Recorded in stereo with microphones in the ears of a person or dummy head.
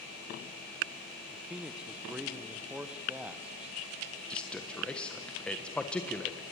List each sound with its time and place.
1.3 s a man speaking: 5° right (ahead or behind), 1.1 m
4.3 s a man speaking: 5° left (ahead or behind), 1.3 m